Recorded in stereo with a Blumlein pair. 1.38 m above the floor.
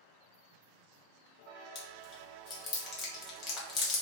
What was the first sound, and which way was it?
Chewing, 30° left.